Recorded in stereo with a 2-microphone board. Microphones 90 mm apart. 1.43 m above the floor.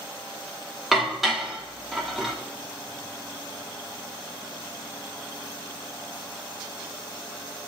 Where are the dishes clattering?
Centre (ahead or behind), 2.5 m.